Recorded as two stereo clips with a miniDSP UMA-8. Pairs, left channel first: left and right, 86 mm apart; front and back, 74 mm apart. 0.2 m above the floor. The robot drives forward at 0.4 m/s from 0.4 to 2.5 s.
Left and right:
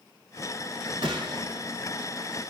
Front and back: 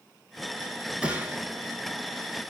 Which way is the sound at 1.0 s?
105° right.